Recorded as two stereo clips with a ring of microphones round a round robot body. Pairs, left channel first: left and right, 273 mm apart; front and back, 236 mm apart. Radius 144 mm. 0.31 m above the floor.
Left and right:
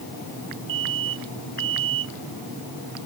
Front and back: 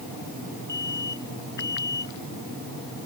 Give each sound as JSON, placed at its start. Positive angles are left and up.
{"t": 0.7, "sound": "an alarm", "azimuth_deg": -80}